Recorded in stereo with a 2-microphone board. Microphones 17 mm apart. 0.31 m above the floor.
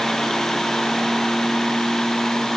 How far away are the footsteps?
I don't hear footsteps.